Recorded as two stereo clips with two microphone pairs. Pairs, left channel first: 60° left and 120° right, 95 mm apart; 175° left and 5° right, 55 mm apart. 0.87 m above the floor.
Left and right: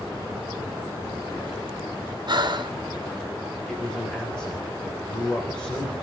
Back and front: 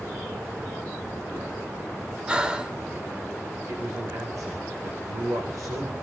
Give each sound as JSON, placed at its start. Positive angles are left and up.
{"t": 2.3, "sound": "breathing", "azimuth_deg": -80, "distance_m": 1.1}
{"t": 3.7, "sound": "a man speaking", "azimuth_deg": -20, "distance_m": 3.5}